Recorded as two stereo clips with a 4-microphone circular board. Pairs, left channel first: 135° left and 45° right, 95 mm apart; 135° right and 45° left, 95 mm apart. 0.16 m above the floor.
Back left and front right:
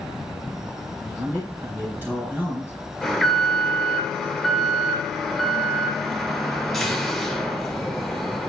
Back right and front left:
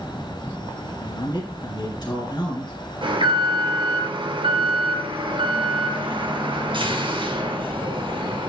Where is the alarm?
45° left, 2 m.